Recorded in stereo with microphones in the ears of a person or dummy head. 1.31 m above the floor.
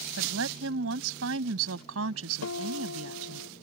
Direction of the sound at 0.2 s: 70° right (ahead or behind).